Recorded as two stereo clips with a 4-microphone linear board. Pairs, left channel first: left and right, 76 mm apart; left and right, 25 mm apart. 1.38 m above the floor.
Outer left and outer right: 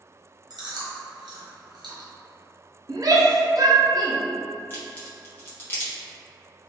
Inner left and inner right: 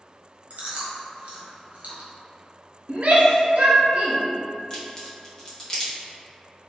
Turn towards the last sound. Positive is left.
turn(degrees=30)  # may be behind; listen again after turning